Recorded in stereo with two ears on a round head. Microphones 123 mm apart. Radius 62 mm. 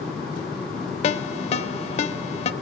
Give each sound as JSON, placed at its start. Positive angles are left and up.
{"t": 1.0, "sound": "a ringtone", "side_deg": 50, "distance_m": 1.0}